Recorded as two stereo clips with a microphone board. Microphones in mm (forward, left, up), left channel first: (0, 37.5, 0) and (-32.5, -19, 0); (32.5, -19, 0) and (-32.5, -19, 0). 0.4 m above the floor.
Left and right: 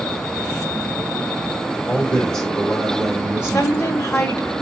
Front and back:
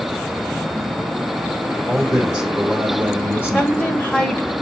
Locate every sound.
1.9 s a man speaking: 110° left, 1.3 m; by 4.1 s 145° right, 1.3 m
3.5 s a woman speaking: 55° left, 1.2 m